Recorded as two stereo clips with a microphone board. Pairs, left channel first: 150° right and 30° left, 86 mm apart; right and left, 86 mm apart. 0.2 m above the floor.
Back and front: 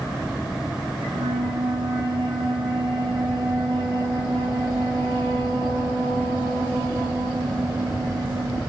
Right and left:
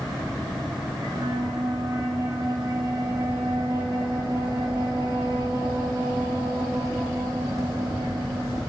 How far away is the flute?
About 9 m.